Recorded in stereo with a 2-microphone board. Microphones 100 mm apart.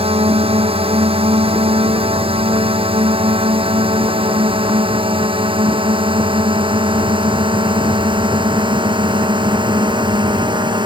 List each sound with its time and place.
0.0 s a drone: 70° right (ahead or behind); by 10.9 s 50° right (ahead or behind)